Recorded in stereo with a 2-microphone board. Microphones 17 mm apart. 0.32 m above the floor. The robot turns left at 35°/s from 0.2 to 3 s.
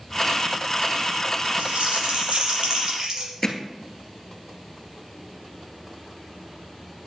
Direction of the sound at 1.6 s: 85° right.